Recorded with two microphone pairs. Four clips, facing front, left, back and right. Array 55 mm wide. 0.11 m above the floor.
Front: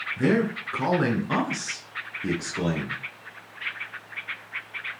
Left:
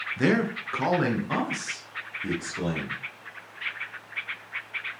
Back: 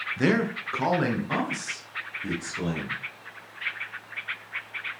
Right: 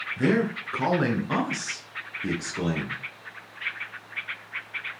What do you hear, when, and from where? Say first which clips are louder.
0.2 s a man speaking: even, front 1 dB; 145° left, 1.3 m; by 3.0 s 35° right, 2.5 m